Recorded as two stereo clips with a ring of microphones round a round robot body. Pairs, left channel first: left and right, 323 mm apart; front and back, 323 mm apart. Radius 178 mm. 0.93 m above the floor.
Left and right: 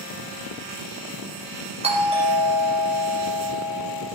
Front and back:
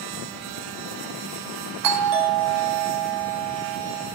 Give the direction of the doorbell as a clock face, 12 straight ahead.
5 o'clock.